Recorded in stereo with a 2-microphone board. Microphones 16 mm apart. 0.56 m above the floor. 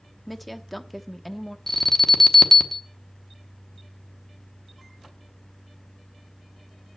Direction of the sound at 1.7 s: 20° left (ahead or behind).